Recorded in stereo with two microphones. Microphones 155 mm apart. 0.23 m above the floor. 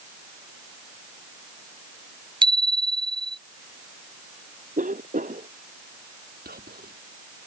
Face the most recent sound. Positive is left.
turn(degrees=-80)